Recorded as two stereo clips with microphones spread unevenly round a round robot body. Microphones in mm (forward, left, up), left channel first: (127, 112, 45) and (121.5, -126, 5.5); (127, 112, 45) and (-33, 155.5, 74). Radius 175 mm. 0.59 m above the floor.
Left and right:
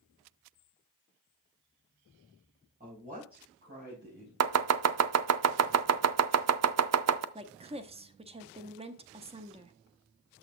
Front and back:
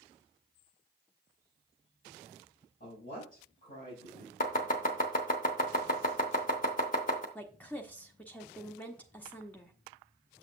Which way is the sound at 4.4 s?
70° right.